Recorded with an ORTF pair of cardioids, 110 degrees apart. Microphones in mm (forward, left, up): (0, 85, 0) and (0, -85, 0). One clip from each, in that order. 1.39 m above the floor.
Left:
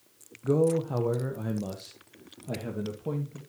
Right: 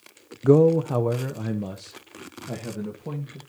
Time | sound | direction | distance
0.4 | a man speaking | 50° right | 0.6 m